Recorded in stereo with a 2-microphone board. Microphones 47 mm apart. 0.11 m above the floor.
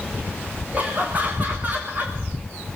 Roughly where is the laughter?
Right.